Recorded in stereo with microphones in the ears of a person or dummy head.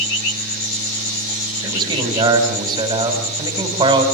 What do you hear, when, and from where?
1.6 s a man speaking: 25° right (ahead or behind), 4.5 m